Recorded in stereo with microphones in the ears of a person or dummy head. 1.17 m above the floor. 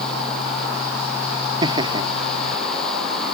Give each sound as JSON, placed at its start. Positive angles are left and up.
{"t": 1.6, "sound": "laughter", "side_deg": -25}